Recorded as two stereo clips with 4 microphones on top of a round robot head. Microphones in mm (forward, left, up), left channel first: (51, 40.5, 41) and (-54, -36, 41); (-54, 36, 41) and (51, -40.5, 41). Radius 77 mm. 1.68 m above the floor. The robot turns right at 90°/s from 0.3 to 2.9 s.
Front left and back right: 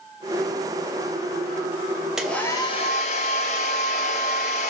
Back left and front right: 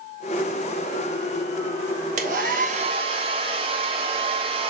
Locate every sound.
2.2 s a hair dryer: 60° right, 1.2 m; by 4.7 s 5° left, 1.2 m